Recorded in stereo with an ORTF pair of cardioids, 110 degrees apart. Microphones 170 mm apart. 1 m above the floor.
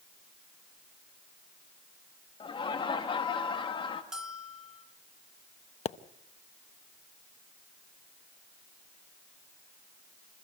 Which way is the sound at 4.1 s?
5° right.